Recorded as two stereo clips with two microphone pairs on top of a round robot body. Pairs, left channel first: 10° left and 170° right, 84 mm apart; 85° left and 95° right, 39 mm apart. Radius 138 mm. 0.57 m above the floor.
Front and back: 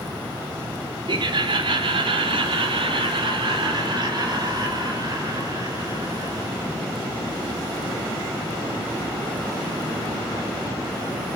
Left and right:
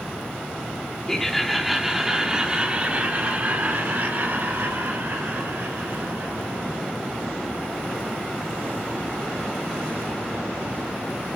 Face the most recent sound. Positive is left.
turn(degrees=-120)